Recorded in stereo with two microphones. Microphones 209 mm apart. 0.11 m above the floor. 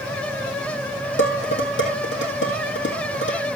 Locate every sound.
1.2 s dishes clattering: 65° left (ahead or behind), 3 m